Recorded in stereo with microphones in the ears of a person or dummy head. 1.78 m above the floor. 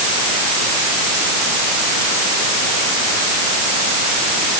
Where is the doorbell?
I don't hear a doorbell.